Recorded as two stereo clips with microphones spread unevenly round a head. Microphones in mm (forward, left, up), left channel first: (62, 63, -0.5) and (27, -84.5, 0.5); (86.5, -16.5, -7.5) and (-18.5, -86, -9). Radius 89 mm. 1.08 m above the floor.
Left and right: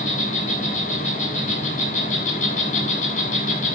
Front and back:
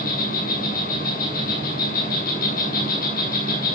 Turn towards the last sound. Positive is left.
turn(degrees=40)